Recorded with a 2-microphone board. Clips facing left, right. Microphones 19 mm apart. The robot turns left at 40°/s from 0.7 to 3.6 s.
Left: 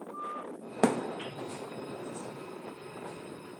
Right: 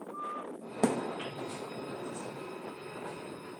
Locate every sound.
0.8 s a thud: 30° left (ahead or behind), 0.9 m; by 1.0 s 25° left (ahead or behind), 0.9 m